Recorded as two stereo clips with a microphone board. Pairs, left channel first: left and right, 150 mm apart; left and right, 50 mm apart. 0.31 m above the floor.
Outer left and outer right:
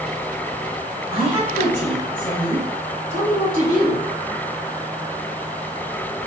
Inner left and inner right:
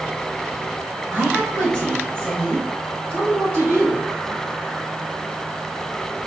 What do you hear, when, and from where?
1.1 s a woman speaking: 30° right (ahead or behind), 1.2 m; by 4.0 s 65° right (ahead or behind), 2.5 m